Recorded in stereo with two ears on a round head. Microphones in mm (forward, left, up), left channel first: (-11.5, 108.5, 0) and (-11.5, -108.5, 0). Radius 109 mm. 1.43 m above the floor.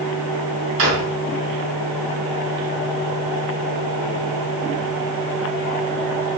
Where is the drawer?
50° right (ahead or behind), 3.5 m.